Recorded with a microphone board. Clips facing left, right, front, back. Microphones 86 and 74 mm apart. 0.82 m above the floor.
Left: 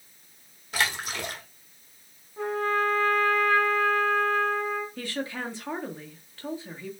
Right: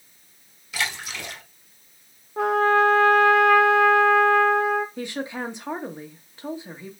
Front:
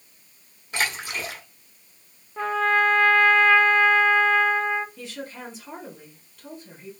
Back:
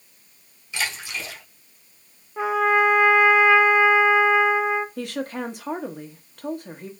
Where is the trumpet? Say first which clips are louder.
Right 8 dB, back 2 dB; 100° right, 0.5 m.